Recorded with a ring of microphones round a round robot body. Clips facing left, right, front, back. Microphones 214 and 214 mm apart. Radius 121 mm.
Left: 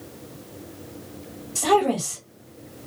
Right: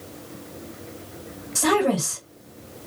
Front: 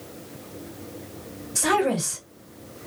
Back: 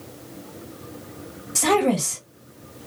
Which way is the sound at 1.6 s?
170° right.